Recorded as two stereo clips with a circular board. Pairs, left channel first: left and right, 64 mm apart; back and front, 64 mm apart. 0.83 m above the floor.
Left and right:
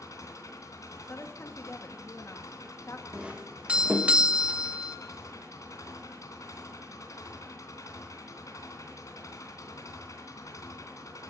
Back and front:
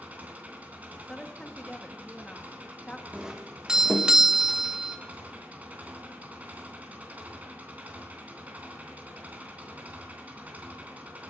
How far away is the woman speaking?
About 1.5 m.